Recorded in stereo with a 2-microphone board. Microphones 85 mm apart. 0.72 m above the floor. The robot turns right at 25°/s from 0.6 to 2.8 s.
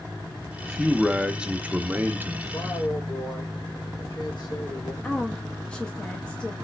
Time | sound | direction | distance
0.6 | a man speaking | 175° left | 0.5 m
2.4 | a man speaking | 60° left (ahead or behind) | 2.5 m
5.0 | a woman speaking | 15° left (ahead or behind) | 0.5 m